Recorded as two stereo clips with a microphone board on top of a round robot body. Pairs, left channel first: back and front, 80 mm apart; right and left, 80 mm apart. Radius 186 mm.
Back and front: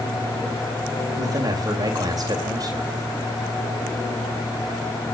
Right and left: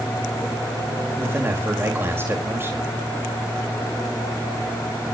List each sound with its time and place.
1.2 s a man speaking: 30° left, 2.5 m